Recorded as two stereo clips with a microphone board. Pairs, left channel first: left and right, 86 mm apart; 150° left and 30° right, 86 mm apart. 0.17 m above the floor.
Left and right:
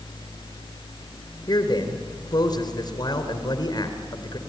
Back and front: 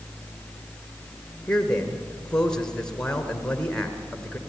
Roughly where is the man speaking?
Left.